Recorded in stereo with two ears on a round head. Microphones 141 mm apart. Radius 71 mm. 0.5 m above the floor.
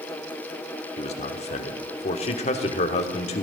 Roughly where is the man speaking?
Left.